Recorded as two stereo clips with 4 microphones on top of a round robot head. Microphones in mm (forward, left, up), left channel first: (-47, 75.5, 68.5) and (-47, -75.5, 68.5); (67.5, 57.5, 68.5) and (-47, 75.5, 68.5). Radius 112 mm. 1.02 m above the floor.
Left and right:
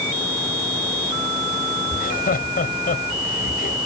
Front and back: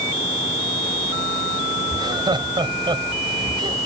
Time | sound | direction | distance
1.9 | laughter | 120° left | ?